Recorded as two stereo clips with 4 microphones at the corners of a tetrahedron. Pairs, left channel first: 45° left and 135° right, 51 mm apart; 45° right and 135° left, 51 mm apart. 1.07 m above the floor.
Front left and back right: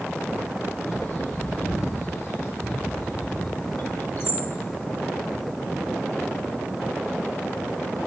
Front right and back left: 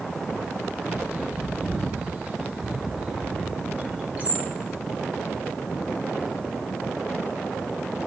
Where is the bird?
80° left, 1.2 m.